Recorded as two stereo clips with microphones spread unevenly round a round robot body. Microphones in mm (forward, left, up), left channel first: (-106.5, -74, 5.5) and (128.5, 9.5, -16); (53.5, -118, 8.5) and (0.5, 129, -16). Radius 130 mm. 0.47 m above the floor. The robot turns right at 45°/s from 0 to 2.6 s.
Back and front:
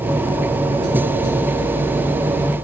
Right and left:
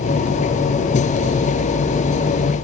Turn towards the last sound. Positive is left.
No sound to turn to.